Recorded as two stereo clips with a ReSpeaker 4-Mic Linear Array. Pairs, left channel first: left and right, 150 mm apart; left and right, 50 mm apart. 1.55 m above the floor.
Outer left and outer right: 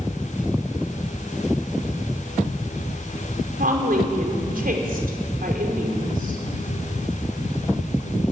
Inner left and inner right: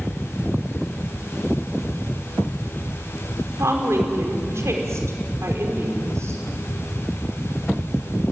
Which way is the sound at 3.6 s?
70° right (ahead or behind).